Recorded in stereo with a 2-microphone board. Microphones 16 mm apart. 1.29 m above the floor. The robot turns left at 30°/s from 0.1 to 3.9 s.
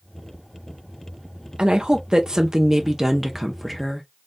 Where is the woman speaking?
115° right, 0.7 m; by 4.0 s 175° left, 0.7 m.